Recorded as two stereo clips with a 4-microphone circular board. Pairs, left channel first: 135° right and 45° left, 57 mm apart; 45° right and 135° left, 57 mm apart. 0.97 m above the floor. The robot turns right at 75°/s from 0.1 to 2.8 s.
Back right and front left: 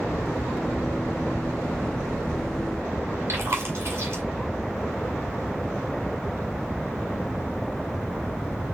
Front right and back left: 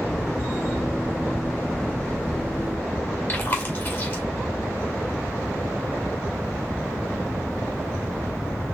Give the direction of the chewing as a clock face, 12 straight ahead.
12 o'clock.